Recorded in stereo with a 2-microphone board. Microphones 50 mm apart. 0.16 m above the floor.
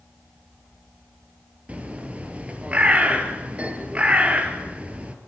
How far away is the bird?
About 3 m.